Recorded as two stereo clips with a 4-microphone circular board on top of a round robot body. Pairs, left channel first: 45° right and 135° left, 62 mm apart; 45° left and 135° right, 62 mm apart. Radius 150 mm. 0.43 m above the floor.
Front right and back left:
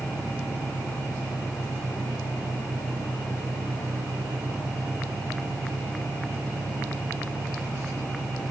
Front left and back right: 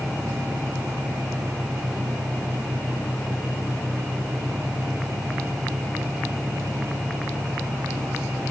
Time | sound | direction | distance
0.0 | an engine running | 125° left | ?